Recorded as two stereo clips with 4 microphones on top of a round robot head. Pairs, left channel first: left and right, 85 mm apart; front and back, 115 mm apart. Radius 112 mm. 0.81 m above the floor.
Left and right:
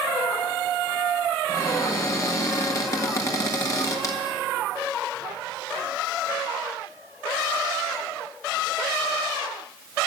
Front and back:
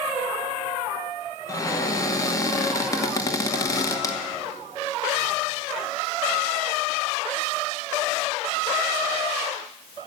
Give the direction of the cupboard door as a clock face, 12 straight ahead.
10 o'clock.